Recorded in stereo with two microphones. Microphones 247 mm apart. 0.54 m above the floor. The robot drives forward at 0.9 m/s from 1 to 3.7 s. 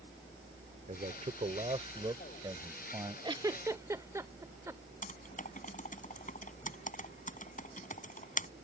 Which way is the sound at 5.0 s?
30° left (ahead or behind).